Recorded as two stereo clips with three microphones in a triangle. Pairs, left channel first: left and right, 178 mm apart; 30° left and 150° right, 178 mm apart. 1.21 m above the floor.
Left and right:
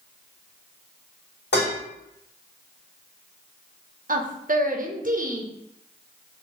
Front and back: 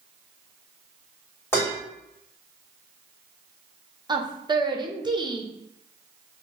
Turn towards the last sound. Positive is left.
turn(degrees=-90)